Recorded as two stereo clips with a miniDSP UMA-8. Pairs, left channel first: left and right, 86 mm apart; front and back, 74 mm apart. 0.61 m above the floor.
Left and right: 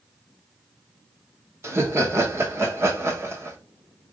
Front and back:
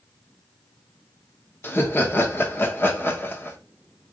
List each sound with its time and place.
1.6 s laughter: 45° right, 1.0 m